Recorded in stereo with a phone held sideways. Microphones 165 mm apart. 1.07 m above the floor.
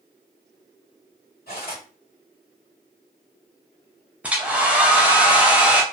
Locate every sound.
1.5 s cutlery clinking: 70° left (ahead or behind), 1.4 m
4.2 s a hair dryer: 10° right (ahead or behind), 0.5 m